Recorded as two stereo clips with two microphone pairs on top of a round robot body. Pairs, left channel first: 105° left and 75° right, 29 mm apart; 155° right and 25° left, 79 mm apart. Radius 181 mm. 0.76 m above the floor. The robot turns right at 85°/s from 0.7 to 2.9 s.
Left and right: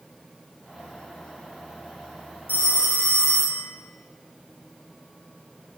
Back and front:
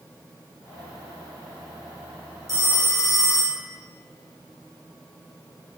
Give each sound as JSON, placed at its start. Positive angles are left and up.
{"t": 2.5, "sound": "a phone ringing", "azimuth_deg": 115, "distance_m": 2.5}